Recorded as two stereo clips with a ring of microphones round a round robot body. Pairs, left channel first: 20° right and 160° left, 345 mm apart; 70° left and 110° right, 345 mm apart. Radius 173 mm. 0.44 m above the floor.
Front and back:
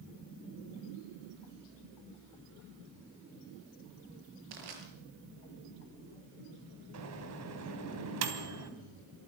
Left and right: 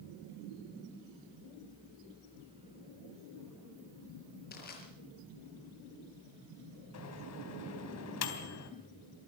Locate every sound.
4.5 s crushing: 130° left, 5.5 m
6.9 s a microwave: 115° left, 3 m